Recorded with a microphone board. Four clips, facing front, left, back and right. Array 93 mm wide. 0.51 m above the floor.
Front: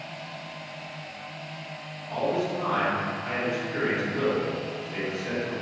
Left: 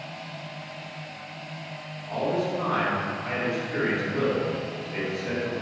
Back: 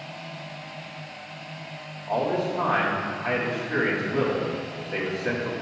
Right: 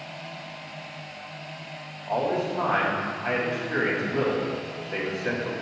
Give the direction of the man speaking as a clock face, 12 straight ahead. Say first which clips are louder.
Right 1 dB, back 2 dB; 4 o'clock.